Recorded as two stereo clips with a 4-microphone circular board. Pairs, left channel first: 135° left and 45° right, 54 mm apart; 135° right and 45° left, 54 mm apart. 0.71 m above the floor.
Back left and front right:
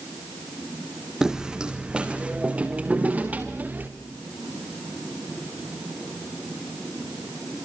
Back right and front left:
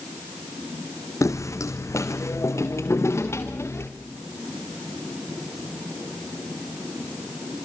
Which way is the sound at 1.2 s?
125° right.